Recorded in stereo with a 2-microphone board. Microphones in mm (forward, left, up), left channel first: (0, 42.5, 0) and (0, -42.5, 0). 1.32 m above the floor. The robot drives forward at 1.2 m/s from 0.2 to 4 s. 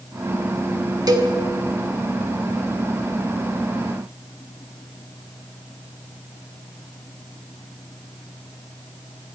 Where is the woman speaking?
I don't hear a woman speaking.